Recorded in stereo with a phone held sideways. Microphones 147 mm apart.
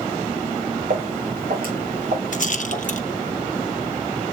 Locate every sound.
0.9 s footsteps: 70° right (ahead or behind), 3 m; by 3.3 s 75° right (ahead or behind), 4 m
2.3 s a rattle: 60° left (ahead or behind), 0.6 m